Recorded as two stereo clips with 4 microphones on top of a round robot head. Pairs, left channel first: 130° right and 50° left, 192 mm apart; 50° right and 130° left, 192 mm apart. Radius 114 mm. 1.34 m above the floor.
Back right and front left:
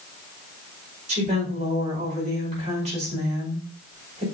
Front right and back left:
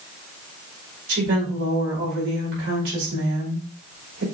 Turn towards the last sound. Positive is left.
turn(degrees=105)